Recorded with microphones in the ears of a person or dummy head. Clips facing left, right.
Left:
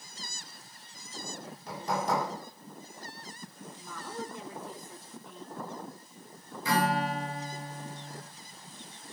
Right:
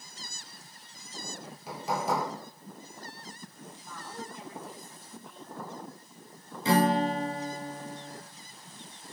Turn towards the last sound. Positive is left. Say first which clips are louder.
# right 4 dB
turn(degrees=-25)  # may be behind; listen again after turning